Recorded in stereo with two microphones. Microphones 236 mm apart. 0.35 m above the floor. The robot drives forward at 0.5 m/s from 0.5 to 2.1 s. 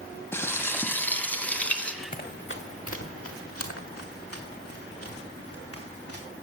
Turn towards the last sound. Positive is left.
turn(degrees=75)  # may be behind; listen again after turning